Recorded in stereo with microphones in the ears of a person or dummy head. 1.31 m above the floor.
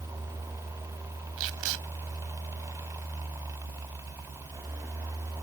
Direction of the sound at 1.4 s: 75° right (ahead or behind).